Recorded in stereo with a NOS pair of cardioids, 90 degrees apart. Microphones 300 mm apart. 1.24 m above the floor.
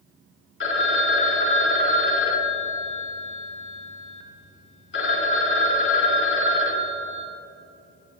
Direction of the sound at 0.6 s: 40° left.